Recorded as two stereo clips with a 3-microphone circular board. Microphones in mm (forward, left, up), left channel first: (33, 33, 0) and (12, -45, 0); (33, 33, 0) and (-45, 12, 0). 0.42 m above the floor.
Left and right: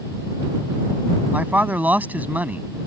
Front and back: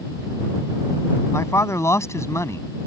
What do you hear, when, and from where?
1.3 s a man speaking: 35° right